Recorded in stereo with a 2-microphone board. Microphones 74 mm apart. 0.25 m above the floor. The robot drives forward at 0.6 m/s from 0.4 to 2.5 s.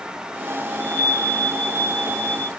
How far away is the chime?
About 1.2 m.